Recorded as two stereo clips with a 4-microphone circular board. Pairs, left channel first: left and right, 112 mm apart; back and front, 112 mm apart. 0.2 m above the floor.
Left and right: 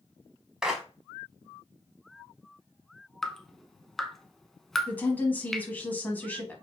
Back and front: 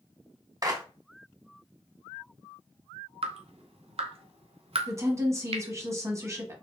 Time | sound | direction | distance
0.6 | a clap | 10° right | 0.9 m
3.2 | dripping | 5° left | 0.5 m
4.9 | a woman speaking | 30° left | 1.1 m